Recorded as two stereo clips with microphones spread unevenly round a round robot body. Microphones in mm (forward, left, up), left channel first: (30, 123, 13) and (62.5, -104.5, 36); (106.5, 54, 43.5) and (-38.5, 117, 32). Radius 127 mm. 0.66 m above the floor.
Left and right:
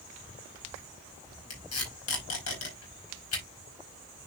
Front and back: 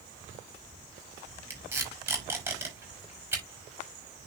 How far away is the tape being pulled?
About 5.5 m.